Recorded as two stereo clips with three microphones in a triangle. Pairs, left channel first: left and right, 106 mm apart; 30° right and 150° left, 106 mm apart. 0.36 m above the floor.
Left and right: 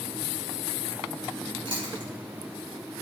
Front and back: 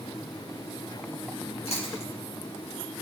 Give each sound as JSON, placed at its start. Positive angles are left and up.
{"t": 1.6, "sound": "chewing", "azimuth_deg": -45, "distance_m": 5.5}